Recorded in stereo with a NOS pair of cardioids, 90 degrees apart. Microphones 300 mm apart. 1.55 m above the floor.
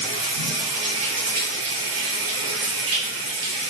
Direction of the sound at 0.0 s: 55° right.